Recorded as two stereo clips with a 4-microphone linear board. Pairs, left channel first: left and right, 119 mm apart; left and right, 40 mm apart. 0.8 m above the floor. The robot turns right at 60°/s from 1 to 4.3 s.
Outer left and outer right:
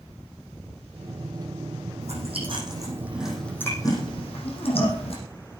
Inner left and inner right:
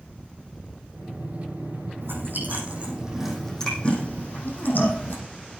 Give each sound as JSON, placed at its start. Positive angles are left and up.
{"t": 2.0, "sound": "chewing", "side_deg": -75, "distance_m": 5.0}